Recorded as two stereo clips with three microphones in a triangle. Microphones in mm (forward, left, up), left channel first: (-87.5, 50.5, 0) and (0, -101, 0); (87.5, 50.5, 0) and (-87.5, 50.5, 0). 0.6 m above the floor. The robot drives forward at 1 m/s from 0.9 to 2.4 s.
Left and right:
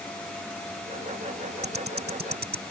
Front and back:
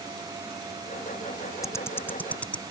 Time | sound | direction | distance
1.6 | ticking | 70° right | ?